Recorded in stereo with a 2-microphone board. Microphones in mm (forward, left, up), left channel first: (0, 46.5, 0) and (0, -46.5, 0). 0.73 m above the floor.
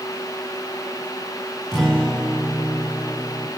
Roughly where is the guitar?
Centre.